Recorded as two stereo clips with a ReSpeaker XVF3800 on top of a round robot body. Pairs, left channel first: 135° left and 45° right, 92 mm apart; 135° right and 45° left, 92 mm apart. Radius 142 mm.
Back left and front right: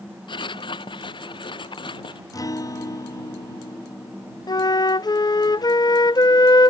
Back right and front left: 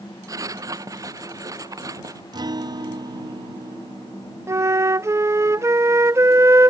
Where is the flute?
100° left.